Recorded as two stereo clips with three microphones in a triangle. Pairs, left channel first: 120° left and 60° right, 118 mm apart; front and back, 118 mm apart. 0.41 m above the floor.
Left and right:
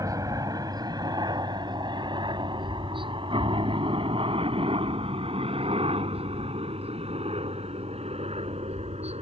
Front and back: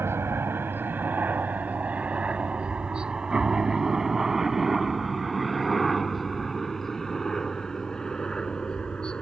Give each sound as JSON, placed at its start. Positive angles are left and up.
{"t": 0.0, "sound": "a helicopter", "azimuth_deg": -115}